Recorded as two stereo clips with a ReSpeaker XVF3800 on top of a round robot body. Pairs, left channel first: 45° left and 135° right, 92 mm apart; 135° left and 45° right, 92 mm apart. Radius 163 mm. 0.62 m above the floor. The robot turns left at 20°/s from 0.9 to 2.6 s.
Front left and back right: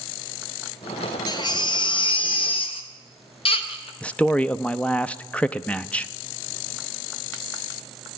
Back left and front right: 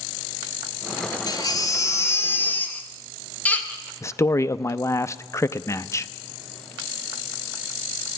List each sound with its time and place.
1.3 s a baby crying: 90° left, 1.2 m; by 3.9 s 60° left, 1.2 m
4.0 s a man speaking: 110° left, 0.7 m